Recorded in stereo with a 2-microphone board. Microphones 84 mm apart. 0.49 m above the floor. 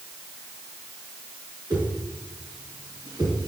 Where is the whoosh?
50° right (ahead or behind), 5 m.